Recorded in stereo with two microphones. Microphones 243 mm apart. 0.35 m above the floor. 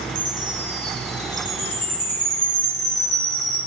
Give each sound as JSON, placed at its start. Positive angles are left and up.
{"t": 0.1, "sound": "a chime", "side_deg": 50, "distance_m": 1.4}